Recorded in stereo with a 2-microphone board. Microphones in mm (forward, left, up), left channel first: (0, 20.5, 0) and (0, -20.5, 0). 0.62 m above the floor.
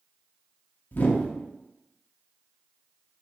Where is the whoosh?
45° left (ahead or behind), 0.6 m.